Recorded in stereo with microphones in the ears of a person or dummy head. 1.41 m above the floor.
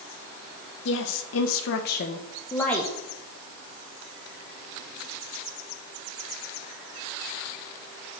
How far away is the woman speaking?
About 1.3 m.